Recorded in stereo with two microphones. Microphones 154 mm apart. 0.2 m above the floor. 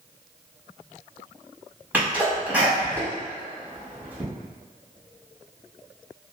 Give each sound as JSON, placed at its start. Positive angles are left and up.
{"t": 1.9, "sound": "a sneeze", "side_deg": -10, "distance_m": 1.0}